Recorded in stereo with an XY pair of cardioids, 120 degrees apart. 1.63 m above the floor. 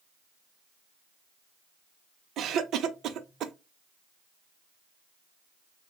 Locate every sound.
2.4 s a cough: 60° right, 0.6 m